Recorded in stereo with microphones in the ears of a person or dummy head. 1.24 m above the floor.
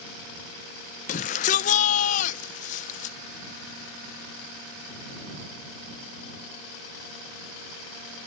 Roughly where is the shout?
Left.